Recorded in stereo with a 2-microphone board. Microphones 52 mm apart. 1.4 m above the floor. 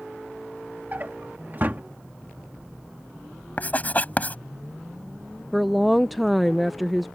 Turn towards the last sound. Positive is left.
turn(degrees=0)  # may be behind; listen again after turning